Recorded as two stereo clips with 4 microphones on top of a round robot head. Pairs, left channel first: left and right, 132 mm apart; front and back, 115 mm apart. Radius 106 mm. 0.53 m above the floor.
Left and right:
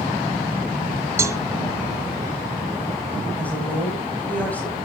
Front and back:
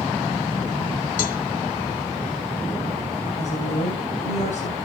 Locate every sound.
1.2 s a cowbell: 20° right, 1.2 m
3.4 s a woman speaking: 10° left, 4.5 m